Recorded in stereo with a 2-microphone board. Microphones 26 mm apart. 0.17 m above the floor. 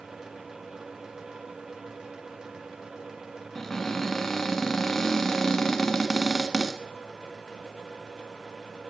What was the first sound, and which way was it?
A cupboard door, 15° left (ahead or behind).